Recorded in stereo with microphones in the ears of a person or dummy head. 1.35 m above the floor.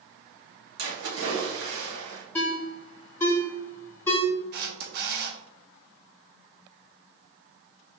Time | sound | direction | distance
0.8 | a splash | 75° right (ahead or behind) | 1.9 m
2.4 | a ringtone | 20° left (ahead or behind) | 1.8 m
4.5 | a camera shutter | 55° right (ahead or behind) | 1.2 m